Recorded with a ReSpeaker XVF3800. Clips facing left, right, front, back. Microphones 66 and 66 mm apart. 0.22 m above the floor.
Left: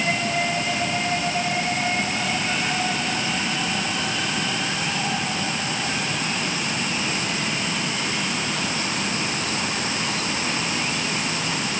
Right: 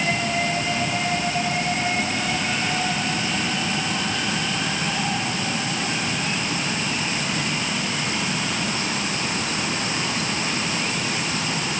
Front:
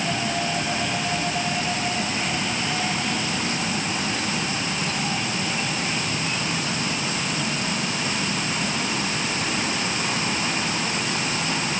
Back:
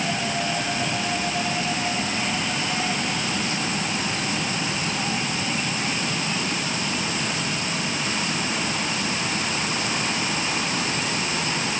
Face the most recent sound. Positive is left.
No sound to turn to.